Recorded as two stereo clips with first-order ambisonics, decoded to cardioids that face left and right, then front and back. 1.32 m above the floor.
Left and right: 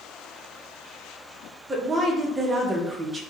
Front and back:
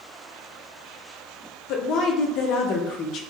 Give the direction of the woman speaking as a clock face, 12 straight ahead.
1 o'clock.